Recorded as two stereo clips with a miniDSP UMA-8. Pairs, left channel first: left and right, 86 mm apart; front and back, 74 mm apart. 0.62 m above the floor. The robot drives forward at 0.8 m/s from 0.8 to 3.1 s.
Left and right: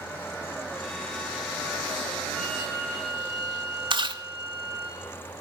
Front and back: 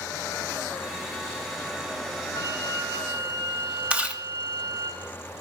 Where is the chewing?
105° right, 0.9 m.